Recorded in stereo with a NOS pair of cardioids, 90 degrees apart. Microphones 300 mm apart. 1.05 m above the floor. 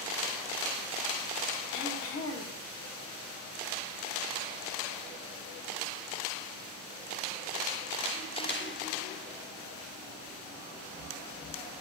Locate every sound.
1.7 s throat clearing: 50° left, 0.8 m